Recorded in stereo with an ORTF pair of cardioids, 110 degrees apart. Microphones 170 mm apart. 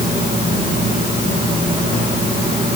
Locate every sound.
Only background noise.